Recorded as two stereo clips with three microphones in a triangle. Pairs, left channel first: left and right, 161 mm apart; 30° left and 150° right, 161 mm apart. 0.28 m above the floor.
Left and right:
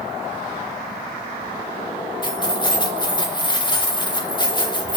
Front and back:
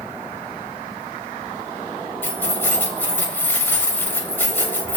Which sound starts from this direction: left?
Keys jangling, at 2.2 s.